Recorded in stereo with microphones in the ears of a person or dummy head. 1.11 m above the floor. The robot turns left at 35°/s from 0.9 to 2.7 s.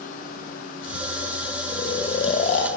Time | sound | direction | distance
1.7 | snoring | 145° left | 0.9 m